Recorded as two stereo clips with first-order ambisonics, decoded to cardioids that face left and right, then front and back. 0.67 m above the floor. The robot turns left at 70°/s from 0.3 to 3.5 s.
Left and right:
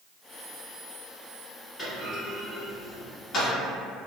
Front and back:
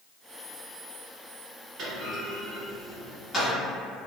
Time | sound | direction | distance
1.8 | a clunk | 165° left | 1.3 m